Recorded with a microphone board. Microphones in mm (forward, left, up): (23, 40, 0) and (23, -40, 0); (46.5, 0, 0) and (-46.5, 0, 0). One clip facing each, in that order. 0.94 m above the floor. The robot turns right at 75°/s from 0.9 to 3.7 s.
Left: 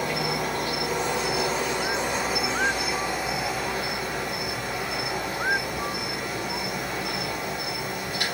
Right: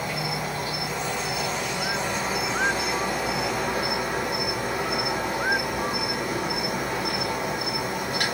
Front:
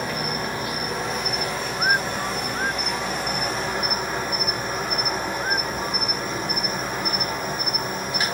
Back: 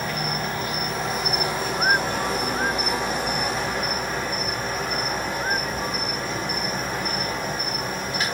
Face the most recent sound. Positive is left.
turn(degrees=-75)